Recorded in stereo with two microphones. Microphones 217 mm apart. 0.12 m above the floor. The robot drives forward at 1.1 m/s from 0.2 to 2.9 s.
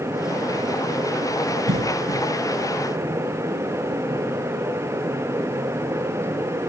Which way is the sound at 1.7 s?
60° right (ahead or behind).